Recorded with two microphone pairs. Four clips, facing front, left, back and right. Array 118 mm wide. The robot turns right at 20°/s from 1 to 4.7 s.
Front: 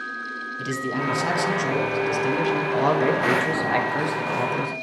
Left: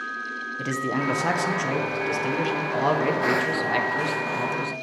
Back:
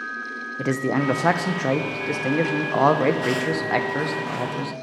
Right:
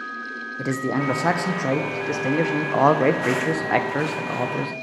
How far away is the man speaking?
About 0.6 m.